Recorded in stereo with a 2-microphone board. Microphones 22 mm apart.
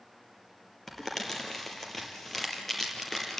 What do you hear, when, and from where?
0.9 s crumpling: 15° left (ahead or behind), 4.5 m